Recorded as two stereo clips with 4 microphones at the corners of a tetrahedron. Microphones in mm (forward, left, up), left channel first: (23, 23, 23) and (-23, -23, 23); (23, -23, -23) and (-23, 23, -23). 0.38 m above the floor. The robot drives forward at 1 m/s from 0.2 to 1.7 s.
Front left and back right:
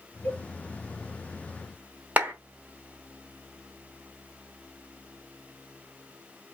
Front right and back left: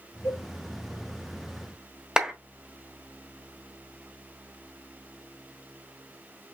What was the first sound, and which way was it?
A cowbell, 15° right.